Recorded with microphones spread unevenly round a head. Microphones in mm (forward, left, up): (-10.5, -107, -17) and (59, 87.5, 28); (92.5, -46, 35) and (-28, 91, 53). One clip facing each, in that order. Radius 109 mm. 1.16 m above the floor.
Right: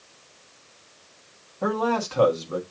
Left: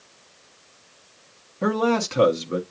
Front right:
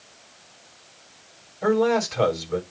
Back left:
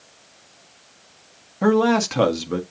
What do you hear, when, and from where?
1.6 s a man speaking: 135° left, 1.6 m